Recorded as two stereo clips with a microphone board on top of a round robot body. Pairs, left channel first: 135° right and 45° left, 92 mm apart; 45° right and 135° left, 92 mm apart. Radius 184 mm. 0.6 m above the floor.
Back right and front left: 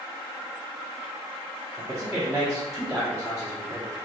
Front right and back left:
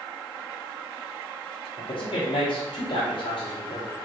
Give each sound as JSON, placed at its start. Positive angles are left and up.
{"t": 1.8, "sound": "a man speaking", "azimuth_deg": -35, "distance_m": 1.5}